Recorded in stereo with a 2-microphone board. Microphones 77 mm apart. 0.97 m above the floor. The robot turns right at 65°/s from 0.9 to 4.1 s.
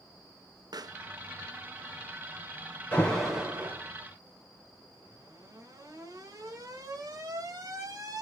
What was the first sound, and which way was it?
A pop, 60° right (ahead or behind).